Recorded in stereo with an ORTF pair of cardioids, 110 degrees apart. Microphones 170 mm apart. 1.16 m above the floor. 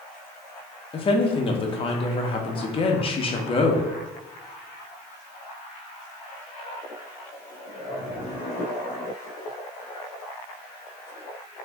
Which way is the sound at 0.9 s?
30° left.